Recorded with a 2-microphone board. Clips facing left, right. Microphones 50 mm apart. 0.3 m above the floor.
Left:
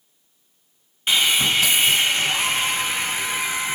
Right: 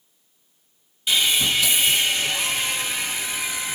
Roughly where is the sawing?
Left.